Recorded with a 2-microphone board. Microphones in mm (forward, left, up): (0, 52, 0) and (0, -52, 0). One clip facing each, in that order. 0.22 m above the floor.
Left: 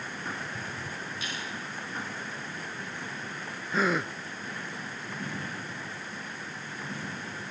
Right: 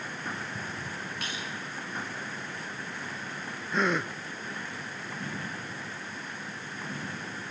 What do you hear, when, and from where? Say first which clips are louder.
1.2 s a snare drum: even; 70° right (ahead or behind), 9 m
3.7 s a gasp: even; centre (ahead or behind), 0.5 m